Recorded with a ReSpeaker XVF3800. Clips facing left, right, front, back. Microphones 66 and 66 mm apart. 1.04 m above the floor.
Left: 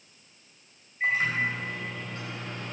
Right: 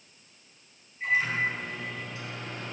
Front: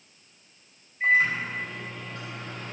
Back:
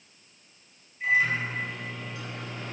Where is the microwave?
50° left, 4 m.